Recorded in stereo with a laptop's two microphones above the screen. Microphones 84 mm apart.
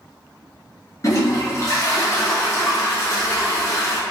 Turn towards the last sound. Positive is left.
turn(degrees=40)  # may be behind; listen again after turning